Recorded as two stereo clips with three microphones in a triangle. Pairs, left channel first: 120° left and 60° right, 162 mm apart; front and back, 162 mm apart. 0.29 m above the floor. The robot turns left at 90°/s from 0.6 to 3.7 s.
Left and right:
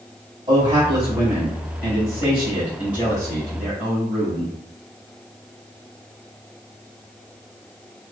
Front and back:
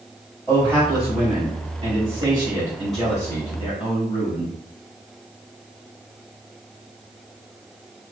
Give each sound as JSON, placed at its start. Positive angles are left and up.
{"t": 0.5, "sound": "a man speaking", "azimuth_deg": -65, "distance_m": 1.8}